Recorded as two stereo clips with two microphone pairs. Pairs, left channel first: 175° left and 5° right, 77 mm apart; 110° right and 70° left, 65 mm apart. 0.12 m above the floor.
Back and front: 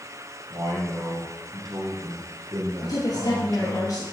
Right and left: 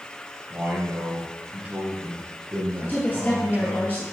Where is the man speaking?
10° left, 3 m.